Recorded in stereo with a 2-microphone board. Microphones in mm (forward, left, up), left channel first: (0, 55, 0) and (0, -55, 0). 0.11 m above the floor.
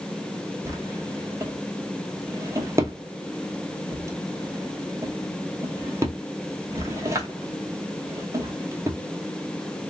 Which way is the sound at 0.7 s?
25° right (ahead or behind).